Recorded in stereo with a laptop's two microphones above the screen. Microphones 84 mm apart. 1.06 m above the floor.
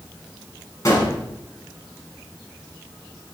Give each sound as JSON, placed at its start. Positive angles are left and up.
{"t": 0.8, "sound": "a gunshot", "side_deg": 40, "distance_m": 5.0}